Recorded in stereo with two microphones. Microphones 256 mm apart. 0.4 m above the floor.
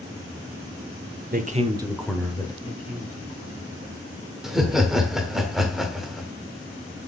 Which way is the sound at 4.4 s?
Centre (ahead or behind).